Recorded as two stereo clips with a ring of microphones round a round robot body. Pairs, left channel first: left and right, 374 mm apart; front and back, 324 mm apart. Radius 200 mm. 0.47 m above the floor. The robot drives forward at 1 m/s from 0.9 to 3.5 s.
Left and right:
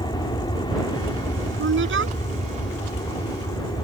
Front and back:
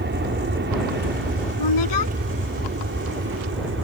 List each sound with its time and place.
0.0 s an aircraft: 160° left
1.6 s a woman speaking: 30° right